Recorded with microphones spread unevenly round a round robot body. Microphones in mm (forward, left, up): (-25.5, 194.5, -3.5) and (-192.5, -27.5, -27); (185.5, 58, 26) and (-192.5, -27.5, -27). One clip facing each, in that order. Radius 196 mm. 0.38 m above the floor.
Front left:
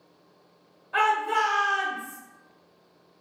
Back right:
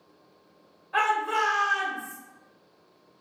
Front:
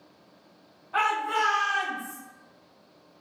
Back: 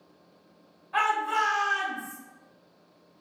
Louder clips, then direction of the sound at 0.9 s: Front left 2 dB, front 1 dB; 150° left.